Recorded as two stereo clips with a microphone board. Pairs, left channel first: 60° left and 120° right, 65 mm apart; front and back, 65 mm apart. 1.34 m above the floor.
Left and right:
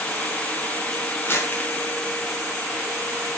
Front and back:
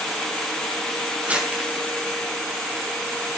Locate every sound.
1.2 s crumpling: 110° left, 5.5 m